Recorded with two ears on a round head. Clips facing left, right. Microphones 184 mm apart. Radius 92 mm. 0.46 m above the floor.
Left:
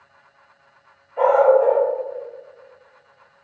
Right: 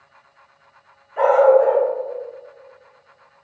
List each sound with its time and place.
1.2 s a dog barking: 50° right (ahead or behind), 1.4 m